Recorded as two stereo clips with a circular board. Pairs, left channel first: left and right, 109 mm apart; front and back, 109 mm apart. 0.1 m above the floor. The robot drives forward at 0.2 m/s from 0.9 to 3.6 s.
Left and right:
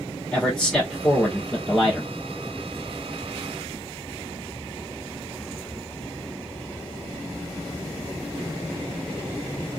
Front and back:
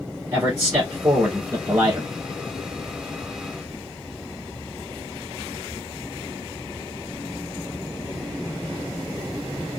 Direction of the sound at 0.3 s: 165° left.